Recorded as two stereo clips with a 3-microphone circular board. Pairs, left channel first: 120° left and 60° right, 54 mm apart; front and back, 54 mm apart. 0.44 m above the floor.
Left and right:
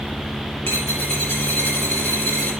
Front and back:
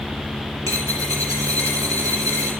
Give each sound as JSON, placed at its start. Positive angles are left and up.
{"t": 0.7, "sound": "a dropped coin", "azimuth_deg": 165, "distance_m": 5.5}